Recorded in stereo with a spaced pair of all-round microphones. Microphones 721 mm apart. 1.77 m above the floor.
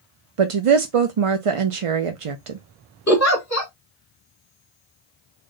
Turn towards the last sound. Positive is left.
turn(degrees=20)  # may be behind; listen again after turning